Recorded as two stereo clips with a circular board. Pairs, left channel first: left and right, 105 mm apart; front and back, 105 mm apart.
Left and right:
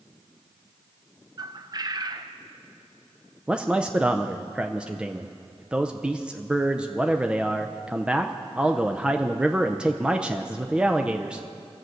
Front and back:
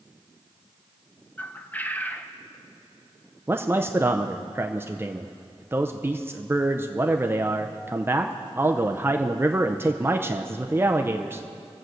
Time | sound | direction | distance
1.4 | a bird | 65° right | 0.6 m
3.5 | a man speaking | 155° right | 0.5 m